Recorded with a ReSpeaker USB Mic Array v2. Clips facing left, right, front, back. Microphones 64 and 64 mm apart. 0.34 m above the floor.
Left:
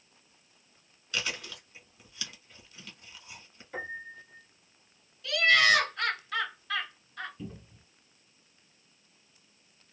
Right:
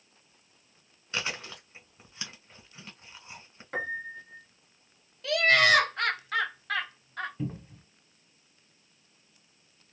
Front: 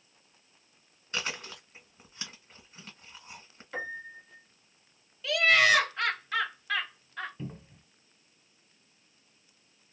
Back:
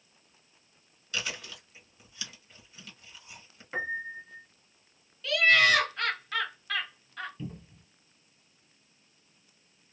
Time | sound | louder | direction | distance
1.1 | chewing | right 1 dB, front 1 dB | 45° right | 1.3 m
3.7 | a piano | right 5 dB, back 4 dB | 115° right | 1.1 m
5.2 | laughter | right 1 dB, even | 80° right | 1.9 m
7.4 | a cupboard door | right 7 dB, even | 55° right | 0.8 m